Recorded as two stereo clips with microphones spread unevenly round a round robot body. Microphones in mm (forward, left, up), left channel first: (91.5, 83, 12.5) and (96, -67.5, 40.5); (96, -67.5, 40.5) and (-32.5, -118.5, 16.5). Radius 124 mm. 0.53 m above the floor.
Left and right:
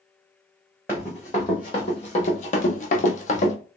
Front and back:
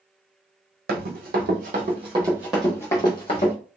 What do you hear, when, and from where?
0.9 s running footsteps: straight behind, 1.0 m; by 3.5 s 50° left, 0.8 m